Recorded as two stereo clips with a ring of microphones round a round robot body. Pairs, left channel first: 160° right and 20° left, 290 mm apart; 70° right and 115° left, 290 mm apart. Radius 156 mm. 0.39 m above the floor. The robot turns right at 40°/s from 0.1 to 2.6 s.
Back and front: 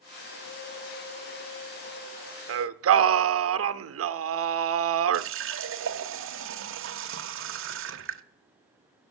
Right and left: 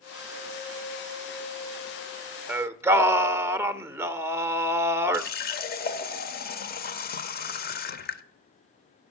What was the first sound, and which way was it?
Singing, 30° left.